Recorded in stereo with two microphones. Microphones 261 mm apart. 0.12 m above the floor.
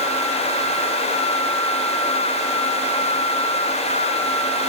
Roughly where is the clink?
No clink in this recording.